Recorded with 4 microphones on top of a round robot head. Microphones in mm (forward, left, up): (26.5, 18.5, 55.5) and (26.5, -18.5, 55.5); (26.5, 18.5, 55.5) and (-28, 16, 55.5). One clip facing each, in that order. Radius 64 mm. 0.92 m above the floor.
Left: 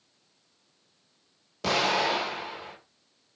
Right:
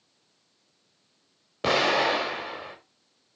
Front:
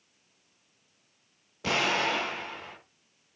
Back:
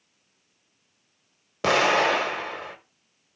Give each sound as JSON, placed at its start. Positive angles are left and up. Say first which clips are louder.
{"t": 1.6, "sound": "an explosion", "louder": "right 3 dB, back 7 dB", "azimuth_deg": -155, "distance_m": 1.3}